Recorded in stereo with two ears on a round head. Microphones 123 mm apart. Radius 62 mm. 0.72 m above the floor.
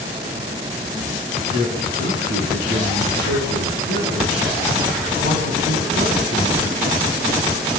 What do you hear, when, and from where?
1.5 s a man speaking: 80° right, 8 m